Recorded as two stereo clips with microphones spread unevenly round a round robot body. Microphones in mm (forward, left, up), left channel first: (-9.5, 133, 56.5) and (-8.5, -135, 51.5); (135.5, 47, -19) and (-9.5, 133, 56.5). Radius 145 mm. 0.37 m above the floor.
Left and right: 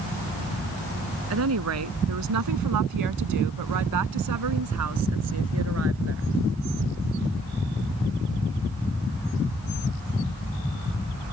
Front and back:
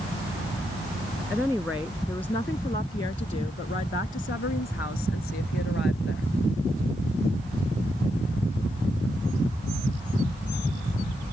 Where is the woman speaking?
125° right; by 6.3 s 45° right.